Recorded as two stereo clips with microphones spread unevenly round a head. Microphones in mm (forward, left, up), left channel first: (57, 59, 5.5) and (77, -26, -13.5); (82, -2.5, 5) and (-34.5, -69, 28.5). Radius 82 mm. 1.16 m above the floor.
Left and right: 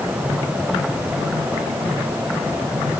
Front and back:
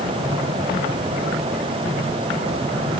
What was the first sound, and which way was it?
Only background noise.